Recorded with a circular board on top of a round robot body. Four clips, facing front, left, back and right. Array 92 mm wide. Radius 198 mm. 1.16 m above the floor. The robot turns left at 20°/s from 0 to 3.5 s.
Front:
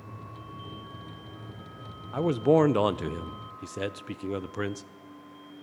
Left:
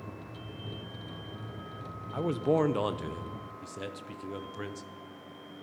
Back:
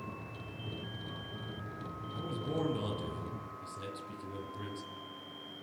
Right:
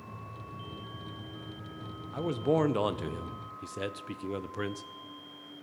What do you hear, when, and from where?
2.1 s a man speaking: 10° left, 0.7 m; by 4.8 s 15° right, 0.7 m